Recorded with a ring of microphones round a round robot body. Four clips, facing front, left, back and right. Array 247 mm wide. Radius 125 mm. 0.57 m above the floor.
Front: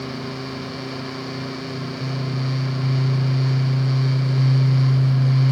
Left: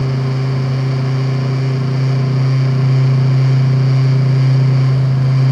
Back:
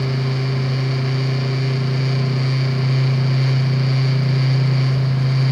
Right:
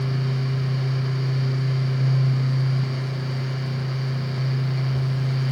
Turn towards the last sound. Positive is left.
No sound to turn to.